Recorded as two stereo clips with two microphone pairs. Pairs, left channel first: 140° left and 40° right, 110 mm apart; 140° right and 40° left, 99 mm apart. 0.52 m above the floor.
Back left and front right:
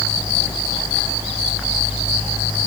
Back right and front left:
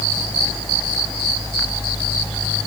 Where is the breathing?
I don't hear breathing.